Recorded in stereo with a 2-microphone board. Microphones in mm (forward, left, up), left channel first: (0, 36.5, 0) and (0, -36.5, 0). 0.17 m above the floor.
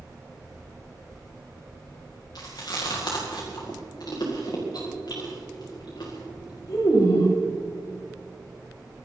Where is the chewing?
65° left (ahead or behind), 5.5 m.